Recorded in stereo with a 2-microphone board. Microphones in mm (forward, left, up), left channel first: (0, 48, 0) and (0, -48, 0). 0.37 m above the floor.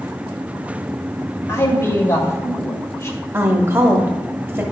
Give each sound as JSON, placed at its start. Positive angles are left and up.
{"t": 1.5, "sound": "a man speaking", "side_deg": 30, "distance_m": 1.8}
{"t": 3.3, "sound": "a woman speaking", "side_deg": -25, "distance_m": 1.5}